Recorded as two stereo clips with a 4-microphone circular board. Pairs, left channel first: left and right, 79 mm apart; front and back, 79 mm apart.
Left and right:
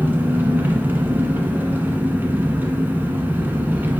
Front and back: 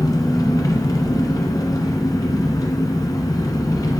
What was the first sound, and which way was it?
An engine running, 25° right.